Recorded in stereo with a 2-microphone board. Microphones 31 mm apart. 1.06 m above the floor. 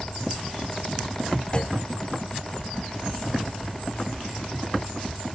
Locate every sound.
1.5 s a clunk: 30° left (ahead or behind)